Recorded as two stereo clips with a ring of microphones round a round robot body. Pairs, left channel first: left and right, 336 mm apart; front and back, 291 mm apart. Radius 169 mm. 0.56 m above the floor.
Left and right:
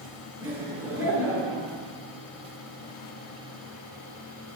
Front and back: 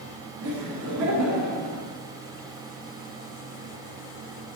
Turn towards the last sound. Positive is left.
turn(degrees=-170)